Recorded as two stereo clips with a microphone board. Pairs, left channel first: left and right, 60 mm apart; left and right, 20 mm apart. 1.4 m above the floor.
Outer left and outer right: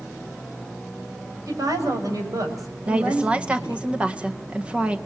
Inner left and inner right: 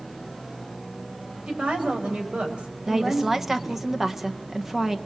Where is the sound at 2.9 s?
20° right (ahead or behind), 1.6 m.